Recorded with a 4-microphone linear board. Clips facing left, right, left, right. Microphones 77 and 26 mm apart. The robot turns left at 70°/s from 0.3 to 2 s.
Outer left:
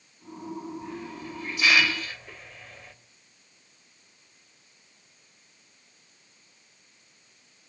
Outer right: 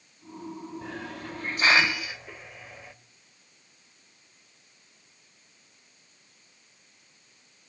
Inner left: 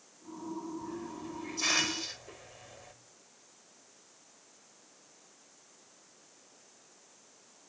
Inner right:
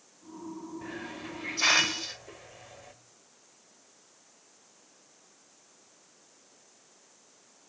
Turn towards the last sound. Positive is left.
turn(degrees=-170)